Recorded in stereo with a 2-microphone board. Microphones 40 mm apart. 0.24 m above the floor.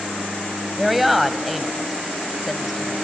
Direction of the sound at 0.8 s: 5° right (ahead or behind).